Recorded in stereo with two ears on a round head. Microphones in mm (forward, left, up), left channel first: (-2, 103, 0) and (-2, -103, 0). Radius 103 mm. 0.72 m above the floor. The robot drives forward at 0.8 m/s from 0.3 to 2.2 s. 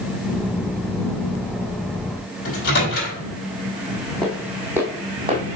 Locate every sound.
2.5 s a microwave: 45° left (ahead or behind), 3.5 m
4.2 s footsteps: 5° left (ahead or behind), 1.7 m; by 5.4 s 25° right (ahead or behind), 1.5 m